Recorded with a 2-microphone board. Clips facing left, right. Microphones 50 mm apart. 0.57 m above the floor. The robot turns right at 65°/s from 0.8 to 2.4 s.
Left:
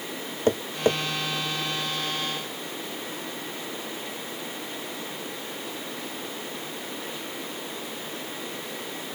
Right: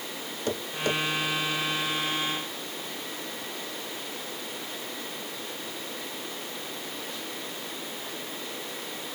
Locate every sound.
0.5 s tapping: 35° left (ahead or behind), 0.7 m; by 1.0 s 25° left (ahead or behind), 0.7 m